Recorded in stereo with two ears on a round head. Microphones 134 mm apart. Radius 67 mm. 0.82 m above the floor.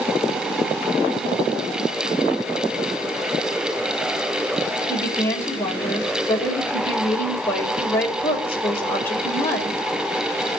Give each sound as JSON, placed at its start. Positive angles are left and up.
{"t": 4.9, "sound": "a woman speaking", "side_deg": 15, "distance_m": 4.0}